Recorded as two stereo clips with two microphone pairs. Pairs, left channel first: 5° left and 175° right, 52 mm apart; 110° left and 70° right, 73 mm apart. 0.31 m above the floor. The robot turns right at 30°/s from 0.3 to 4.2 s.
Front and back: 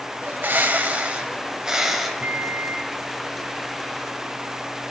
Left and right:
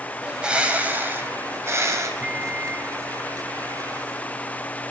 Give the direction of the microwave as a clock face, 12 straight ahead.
4 o'clock.